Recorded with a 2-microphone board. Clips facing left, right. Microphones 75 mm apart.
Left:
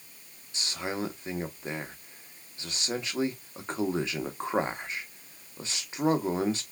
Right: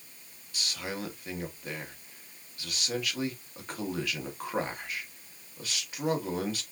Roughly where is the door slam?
No door slam in this recording.